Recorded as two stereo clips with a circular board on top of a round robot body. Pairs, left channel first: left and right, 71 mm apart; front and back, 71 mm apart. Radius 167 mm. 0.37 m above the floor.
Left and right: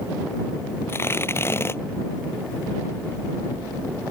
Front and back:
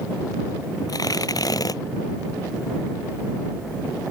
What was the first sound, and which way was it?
Tearing paper, 35° left.